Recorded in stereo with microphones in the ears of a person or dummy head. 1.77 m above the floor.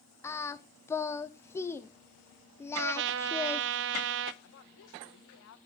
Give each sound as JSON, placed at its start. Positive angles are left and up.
{"t": 0.2, "sound": "singing", "side_deg": 15, "distance_m": 1.0}
{"t": 2.8, "sound": "a trumpet", "side_deg": -65, "distance_m": 0.9}
{"t": 4.4, "sound": "a woman speaking", "side_deg": 70, "distance_m": 2.0}